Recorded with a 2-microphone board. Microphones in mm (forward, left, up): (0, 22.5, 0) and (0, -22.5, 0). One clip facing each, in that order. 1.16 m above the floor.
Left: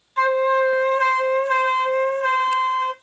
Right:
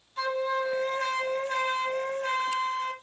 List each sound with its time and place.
0.2 s a flute: 50° left (ahead or behind), 1.0 m